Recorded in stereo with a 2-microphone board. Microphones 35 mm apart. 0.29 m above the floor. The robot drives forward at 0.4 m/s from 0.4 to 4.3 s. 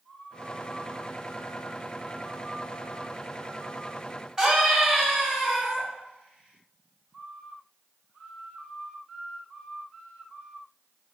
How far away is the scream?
About 1.9 m.